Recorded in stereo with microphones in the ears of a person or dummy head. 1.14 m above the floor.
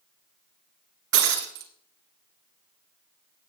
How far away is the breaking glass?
About 3 m.